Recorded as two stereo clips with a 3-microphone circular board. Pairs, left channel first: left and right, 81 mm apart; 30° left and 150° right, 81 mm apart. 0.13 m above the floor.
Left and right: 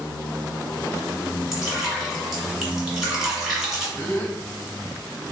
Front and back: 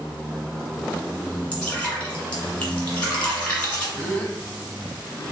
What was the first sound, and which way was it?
Dripping, 10° right.